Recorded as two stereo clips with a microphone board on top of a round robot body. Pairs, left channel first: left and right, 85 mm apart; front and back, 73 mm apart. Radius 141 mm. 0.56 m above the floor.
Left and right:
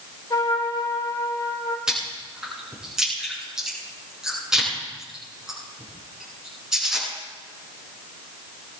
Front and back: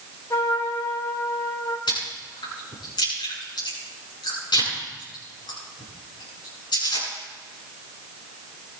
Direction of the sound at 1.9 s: 10° right.